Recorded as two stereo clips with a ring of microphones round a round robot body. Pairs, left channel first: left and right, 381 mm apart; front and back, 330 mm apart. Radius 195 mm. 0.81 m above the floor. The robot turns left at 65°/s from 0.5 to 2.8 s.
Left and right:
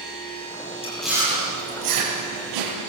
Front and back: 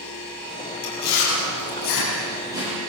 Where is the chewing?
15° left, 8 m; by 2.8 s 110° right, 8 m.